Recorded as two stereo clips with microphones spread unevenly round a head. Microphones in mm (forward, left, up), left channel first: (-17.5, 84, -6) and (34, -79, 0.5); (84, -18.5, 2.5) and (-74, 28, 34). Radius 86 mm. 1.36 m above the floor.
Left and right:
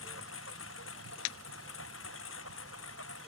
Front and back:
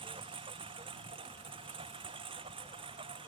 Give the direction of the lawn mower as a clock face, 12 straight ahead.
8 o'clock.